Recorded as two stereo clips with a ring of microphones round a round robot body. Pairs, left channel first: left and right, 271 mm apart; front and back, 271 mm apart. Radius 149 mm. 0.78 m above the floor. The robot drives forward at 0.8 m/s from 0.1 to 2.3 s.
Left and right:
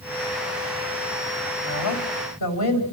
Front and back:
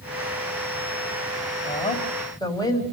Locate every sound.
1.6 s a woman speaking: 70° left, 4 m; by 2.8 s 75° left, 4 m